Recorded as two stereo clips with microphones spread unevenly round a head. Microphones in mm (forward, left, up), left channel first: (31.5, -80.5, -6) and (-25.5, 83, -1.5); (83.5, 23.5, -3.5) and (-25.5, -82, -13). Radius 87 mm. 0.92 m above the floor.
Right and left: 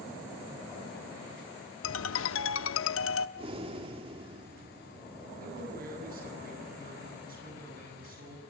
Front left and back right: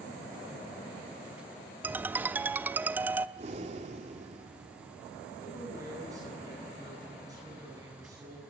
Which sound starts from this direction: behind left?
A man speaking, at 5.4 s.